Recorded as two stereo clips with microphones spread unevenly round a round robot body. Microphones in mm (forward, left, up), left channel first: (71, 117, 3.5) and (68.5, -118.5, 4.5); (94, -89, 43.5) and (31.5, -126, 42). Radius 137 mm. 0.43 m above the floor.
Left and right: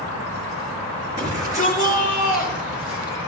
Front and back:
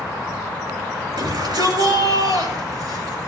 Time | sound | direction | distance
1.2 | a shout | 165° right | 8.5 m